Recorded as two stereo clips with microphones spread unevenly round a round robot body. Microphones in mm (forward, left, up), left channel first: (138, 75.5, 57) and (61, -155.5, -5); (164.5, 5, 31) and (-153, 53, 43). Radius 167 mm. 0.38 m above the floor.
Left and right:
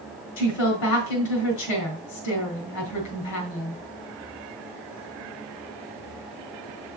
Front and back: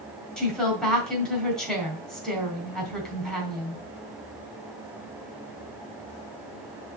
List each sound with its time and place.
0.4 s a woman speaking: 80° left, 3 m